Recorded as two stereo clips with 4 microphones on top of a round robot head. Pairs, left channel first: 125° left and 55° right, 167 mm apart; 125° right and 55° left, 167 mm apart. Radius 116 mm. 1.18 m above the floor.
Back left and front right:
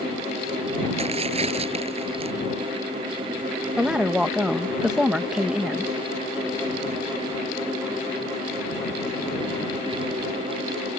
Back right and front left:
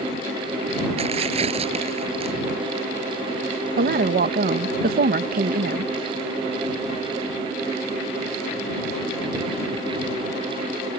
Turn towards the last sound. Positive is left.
turn(degrees=30)